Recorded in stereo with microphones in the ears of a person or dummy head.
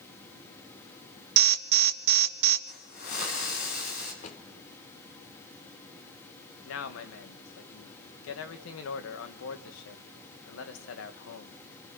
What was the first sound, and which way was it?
An alarm, 55° right (ahead or behind).